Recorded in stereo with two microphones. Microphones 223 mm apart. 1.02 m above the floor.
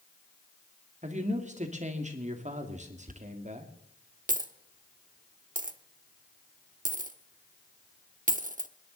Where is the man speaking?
30° right (ahead or behind), 1.9 m.